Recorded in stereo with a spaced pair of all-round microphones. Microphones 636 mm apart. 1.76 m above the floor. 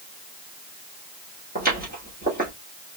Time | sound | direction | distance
1.6 | footsteps | 15° right (ahead or behind) | 2.5 m